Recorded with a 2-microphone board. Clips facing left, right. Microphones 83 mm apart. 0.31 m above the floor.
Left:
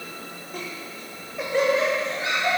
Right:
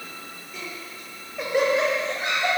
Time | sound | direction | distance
0.5 | laughter | 55° left (ahead or behind) | 1.4 m